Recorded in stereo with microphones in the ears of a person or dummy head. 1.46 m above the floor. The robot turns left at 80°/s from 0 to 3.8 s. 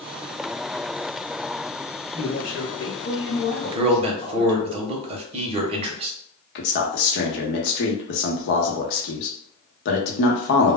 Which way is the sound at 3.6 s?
25° right (ahead or behind).